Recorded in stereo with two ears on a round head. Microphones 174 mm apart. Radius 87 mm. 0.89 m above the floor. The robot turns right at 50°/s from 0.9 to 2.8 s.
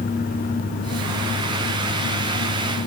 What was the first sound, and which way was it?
Only background noise.